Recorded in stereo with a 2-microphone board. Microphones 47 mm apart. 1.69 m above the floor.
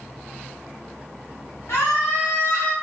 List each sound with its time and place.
1.7 s a scream: 85° left, 1.5 m; by 2.7 s 70° left (ahead or behind), 1.3 m